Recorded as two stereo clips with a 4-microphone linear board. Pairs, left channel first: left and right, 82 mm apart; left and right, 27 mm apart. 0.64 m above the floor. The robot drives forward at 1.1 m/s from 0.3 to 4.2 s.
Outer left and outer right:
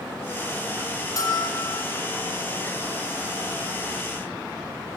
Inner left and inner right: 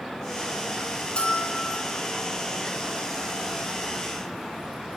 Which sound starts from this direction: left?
A bell, at 1.2 s.